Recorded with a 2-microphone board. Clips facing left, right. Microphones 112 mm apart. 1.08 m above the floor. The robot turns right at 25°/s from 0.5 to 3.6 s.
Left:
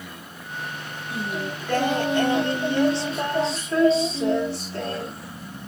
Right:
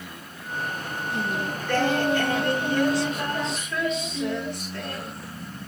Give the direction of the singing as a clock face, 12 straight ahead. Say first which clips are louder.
Even; 12 o'clock.